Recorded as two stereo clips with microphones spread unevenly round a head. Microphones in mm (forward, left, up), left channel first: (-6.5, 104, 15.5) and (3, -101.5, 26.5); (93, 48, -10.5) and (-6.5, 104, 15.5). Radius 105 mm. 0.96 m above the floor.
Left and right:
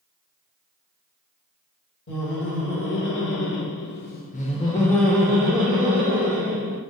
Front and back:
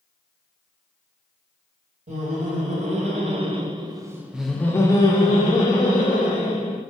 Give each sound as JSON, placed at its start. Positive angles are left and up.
{"t": 2.1, "sound": "laughter", "azimuth_deg": 125, "distance_m": 1.3}